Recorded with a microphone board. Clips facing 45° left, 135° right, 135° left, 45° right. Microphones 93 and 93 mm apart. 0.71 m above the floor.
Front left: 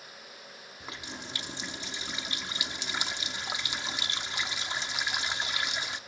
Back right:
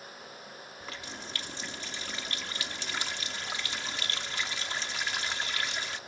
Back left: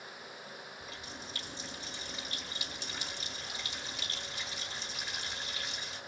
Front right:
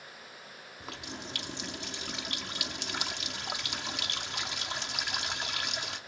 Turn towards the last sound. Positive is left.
turn(degrees=-25)